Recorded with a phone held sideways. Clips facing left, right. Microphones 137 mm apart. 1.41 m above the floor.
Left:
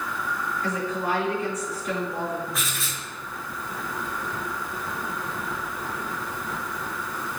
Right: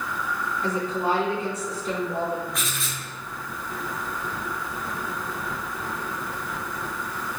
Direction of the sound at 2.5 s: Centre (ahead or behind).